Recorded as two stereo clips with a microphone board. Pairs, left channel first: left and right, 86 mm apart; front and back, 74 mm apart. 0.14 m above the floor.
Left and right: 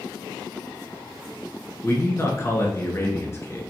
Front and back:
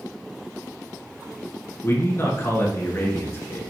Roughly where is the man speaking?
Ahead left.